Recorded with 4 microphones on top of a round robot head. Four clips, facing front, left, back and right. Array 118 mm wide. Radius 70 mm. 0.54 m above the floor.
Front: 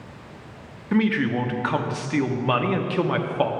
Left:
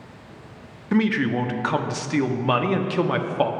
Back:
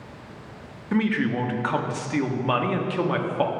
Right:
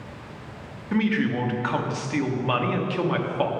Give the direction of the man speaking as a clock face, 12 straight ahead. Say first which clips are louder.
Left 2 dB, front 2 dB; 10 o'clock.